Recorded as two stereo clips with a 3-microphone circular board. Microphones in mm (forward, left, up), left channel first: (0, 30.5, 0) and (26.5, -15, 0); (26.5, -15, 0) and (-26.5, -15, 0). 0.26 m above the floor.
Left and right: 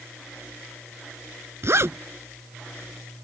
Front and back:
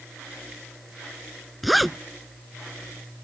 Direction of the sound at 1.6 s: 90° right.